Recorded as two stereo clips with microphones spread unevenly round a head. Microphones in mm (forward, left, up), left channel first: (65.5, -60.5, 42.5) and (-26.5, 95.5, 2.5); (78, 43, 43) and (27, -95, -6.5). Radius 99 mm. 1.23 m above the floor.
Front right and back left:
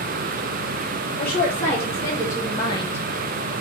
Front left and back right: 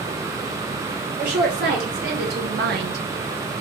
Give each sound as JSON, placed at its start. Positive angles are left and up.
{"t": 1.2, "sound": "a woman speaking", "azimuth_deg": -140, "distance_m": 2.5}